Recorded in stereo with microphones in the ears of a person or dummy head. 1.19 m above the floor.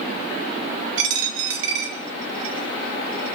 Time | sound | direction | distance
1.0 | a dropped coin | 70° right (ahead or behind) | 1.3 m